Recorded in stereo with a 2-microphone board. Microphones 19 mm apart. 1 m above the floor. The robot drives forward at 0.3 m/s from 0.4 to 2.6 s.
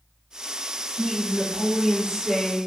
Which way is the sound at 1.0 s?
15° right (ahead or behind).